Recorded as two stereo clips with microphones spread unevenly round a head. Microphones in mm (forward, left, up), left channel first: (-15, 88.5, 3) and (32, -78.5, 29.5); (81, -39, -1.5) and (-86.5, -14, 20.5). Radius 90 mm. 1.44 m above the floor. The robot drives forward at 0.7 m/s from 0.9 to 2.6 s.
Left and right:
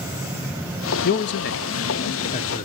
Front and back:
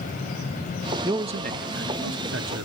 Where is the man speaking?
95° left, 0.5 m; by 2.7 s 155° left, 1.2 m.